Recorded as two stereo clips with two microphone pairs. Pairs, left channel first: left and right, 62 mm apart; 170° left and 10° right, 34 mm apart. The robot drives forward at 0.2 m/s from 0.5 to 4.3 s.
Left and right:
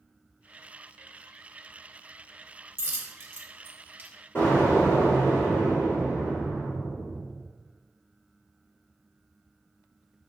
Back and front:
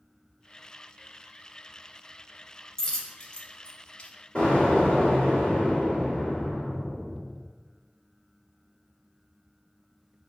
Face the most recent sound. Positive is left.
turn(degrees=125)